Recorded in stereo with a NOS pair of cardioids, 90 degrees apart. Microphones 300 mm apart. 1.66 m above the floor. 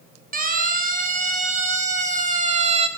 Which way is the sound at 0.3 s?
30° right.